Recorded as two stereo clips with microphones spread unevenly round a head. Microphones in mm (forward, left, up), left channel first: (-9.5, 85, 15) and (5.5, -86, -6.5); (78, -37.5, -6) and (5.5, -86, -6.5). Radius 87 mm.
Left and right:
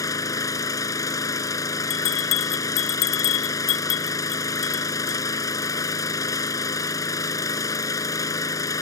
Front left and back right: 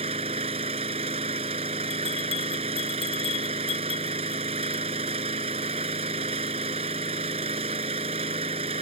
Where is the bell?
85° left.